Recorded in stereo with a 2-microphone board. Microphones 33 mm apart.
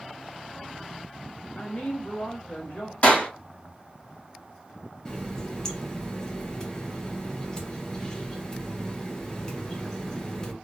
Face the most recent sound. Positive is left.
turn(degrees=20)  # may be behind; listen again after turning